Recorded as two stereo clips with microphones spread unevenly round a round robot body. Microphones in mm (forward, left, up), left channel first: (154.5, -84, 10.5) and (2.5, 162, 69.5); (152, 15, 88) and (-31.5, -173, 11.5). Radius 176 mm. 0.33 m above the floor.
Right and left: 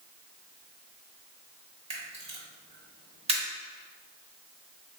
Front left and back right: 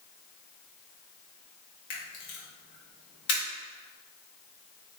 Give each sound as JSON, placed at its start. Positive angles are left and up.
{"t": 1.9, "sound": "a camera shutter", "azimuth_deg": 45, "distance_m": 1.0}